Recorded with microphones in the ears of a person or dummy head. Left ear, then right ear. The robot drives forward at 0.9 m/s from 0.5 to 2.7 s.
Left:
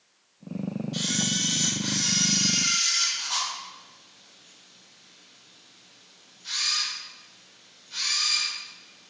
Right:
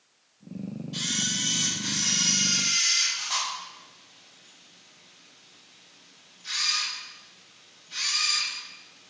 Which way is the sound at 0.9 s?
10° right (ahead or behind).